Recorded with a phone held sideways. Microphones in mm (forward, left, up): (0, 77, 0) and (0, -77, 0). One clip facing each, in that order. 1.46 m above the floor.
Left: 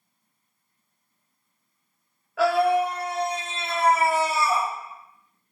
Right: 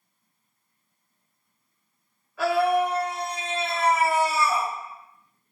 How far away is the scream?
About 0.8 m.